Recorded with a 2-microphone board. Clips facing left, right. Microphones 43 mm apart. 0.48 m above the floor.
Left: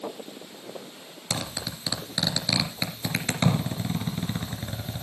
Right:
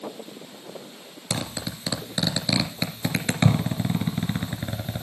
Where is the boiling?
No boiling in this recording.